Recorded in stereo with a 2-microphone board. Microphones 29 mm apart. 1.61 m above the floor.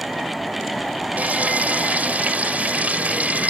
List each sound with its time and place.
1.2 s frying: 70° right (ahead or behind)